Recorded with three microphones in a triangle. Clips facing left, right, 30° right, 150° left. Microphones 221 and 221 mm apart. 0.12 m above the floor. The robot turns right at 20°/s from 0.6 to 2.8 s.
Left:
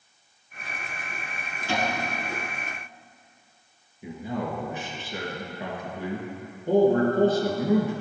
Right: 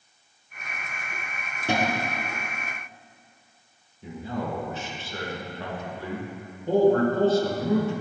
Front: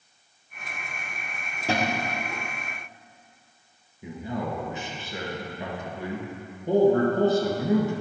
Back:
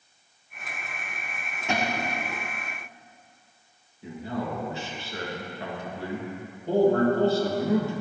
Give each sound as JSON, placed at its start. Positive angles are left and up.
{"t": 1.7, "sound": "a cupboard door", "azimuth_deg": -80, "distance_m": 1.2}
{"t": 4.0, "sound": "a man speaking", "azimuth_deg": 25, "distance_m": 1.6}